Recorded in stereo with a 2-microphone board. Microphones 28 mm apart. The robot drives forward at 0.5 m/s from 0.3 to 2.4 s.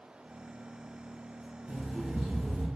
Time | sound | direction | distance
1.7 | an alarm clock | 45° right (ahead or behind) | 0.6 m